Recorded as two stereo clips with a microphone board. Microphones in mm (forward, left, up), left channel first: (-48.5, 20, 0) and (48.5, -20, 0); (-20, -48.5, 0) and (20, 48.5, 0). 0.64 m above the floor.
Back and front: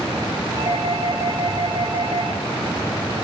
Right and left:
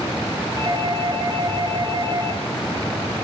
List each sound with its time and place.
0.6 s a doorbell: 15° left, 6.5 m